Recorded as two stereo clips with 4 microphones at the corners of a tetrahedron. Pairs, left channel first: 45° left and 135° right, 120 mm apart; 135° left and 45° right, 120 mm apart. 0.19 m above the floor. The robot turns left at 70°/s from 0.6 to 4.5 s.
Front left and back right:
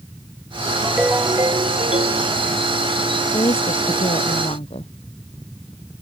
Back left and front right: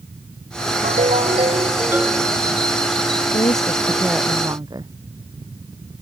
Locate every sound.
0.8 s a ringtone: 40° right; by 2.3 s 145° right
3.3 s a woman speaking: 95° left; by 4.9 s 10° left